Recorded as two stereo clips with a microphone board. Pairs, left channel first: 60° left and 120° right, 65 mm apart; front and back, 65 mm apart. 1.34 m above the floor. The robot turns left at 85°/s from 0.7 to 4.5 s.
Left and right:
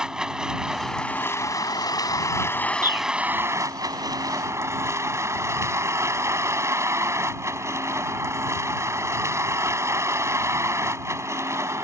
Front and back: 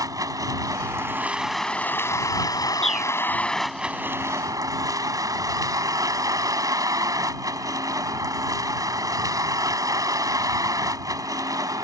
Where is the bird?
80° right; by 3.1 s 105° right.